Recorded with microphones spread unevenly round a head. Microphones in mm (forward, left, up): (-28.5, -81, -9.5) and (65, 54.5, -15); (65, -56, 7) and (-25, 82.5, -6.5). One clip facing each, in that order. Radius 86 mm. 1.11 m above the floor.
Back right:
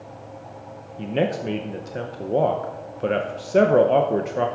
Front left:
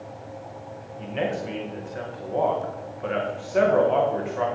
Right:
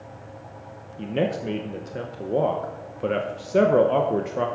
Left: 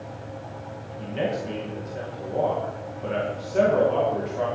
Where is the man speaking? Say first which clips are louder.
Back right 4 dB, right 2 dB; 85° right, 0.9 m.